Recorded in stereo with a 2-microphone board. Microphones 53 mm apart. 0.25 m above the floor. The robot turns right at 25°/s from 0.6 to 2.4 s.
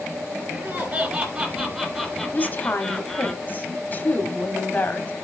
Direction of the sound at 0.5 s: 45° right.